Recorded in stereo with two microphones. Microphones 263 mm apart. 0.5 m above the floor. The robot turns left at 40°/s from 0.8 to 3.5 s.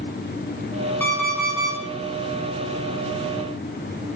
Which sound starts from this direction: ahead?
An alarm clock, at 1.0 s.